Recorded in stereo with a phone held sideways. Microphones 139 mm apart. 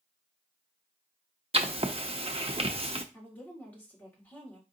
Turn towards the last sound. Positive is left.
turn(degrees=10)  # may be behind; listen again after turning